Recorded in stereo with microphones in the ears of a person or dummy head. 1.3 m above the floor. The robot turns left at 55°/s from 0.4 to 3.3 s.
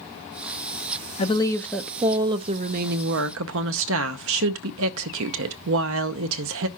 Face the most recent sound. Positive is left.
turn(degrees=-80)